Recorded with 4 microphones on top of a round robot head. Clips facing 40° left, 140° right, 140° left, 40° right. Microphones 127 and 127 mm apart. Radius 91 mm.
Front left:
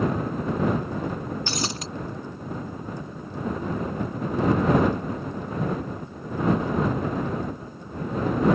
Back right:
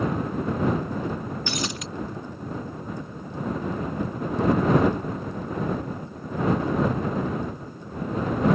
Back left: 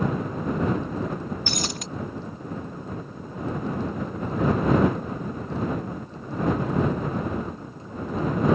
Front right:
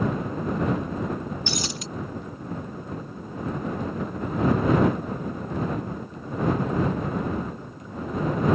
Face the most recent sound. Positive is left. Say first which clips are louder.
# even, even
turn(degrees=95)